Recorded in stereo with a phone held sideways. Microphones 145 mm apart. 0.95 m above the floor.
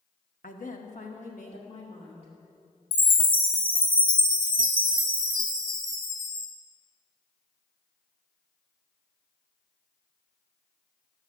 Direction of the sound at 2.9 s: 65° left (ahead or behind).